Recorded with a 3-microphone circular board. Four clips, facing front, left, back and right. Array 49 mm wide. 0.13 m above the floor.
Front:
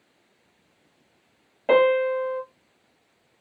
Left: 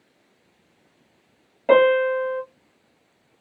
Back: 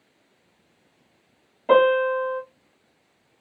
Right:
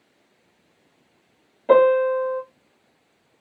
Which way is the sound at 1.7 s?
35° left.